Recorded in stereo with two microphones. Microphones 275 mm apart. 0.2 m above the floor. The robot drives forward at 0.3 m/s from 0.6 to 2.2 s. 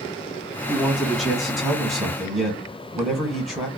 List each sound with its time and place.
0.7 s a man speaking: centre (ahead or behind), 1.3 m